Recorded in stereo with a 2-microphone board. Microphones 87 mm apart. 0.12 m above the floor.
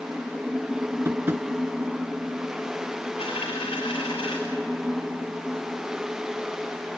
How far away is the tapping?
About 0.7 m.